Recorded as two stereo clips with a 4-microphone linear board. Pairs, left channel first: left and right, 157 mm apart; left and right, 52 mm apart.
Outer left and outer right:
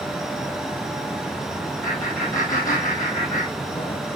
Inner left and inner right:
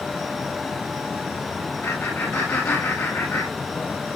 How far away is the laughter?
About 4.5 m.